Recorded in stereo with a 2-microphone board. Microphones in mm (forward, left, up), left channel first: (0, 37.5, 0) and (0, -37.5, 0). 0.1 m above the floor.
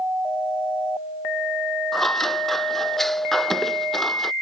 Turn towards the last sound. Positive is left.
turn(degrees=5)  # may be behind; listen again after turning